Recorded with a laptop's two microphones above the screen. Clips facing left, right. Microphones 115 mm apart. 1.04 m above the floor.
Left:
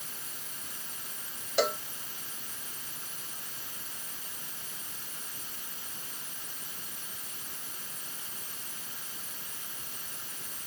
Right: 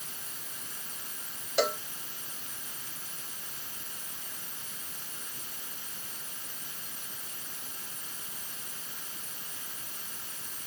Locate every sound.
1.6 s a cowbell: centre (ahead or behind)